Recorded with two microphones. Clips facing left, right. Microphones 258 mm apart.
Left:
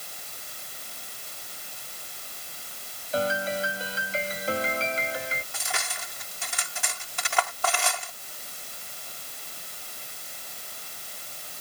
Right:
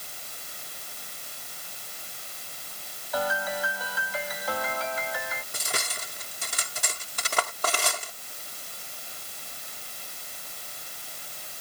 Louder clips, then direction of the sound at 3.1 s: Left 3 dB; 30° left (ahead or behind).